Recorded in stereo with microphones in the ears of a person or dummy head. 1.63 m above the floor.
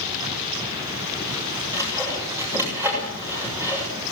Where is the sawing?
10° right (ahead or behind), 7 m.